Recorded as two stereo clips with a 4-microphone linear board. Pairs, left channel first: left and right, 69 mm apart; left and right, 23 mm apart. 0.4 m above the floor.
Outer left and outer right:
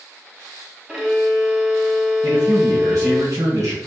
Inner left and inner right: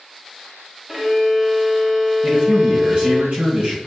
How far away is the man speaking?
About 1.5 m.